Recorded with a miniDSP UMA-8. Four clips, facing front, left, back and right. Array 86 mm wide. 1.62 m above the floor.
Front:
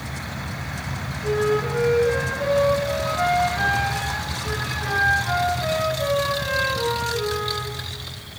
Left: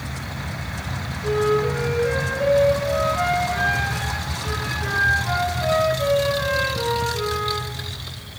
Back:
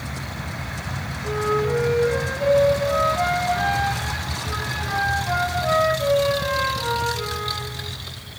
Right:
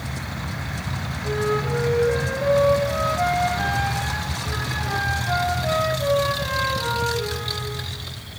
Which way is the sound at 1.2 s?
55° left.